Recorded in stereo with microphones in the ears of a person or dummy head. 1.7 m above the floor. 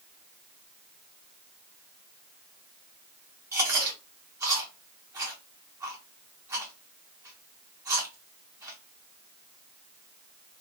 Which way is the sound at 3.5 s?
20° right (ahead or behind).